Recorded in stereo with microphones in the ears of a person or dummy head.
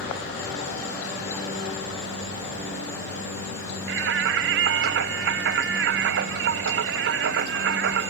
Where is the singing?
70° right (ahead or behind).